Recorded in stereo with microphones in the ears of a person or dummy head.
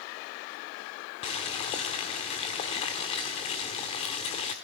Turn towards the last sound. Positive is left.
turn(degrees=25)  # may be behind; listen again after turning